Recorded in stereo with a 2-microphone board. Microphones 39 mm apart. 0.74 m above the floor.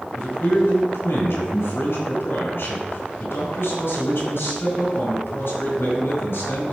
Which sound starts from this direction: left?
A man speaking, at 0.1 s.